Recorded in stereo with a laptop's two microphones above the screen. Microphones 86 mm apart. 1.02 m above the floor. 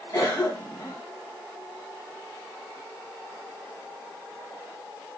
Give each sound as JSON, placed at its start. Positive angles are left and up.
{"t": 0.1, "sound": "a cough", "side_deg": 40, "distance_m": 0.6}